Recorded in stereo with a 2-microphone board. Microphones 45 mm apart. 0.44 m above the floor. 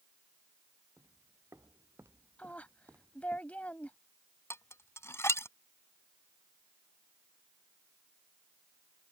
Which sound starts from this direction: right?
Footsteps, at 1.0 s.